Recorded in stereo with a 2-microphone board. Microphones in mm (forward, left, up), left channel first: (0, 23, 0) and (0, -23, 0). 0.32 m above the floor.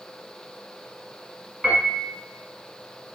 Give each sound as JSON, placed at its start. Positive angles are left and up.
{"t": 1.6, "sound": "a piano", "side_deg": 5, "distance_m": 1.7}